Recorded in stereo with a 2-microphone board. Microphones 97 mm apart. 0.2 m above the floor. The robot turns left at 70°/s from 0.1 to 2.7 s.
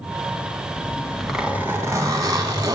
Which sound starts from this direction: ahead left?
A zipper, at 0.8 s.